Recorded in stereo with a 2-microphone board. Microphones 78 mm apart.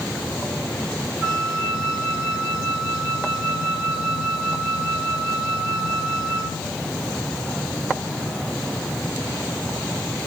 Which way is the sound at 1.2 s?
25° right (ahead or behind).